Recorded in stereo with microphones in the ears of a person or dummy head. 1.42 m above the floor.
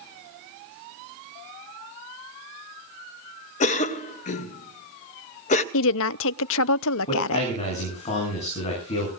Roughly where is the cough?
Left.